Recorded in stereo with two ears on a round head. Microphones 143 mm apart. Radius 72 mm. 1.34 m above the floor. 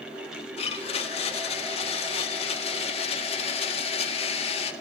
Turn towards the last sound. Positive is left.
turn(degrees=40)  # may be behind; listen again after turning